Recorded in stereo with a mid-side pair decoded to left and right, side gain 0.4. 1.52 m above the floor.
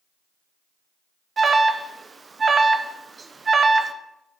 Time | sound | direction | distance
1.4 | an alarm | 35° right | 0.7 m